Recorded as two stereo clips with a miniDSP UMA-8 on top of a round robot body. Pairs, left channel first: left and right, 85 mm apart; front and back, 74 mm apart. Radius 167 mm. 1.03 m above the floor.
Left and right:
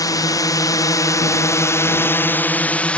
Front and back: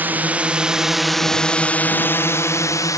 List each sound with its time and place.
0.0 s a drone: 120° left; by 3.0 s 15° left